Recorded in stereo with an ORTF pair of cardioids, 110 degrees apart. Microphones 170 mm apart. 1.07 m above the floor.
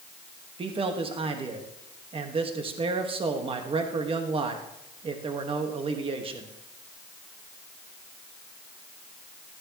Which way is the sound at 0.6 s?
35° right.